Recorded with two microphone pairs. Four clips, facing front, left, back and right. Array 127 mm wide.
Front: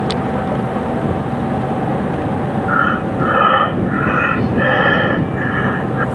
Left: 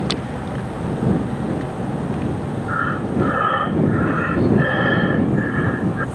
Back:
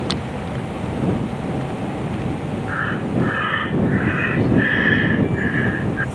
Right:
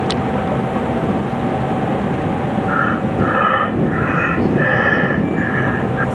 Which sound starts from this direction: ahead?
Breathing, at 2.7 s.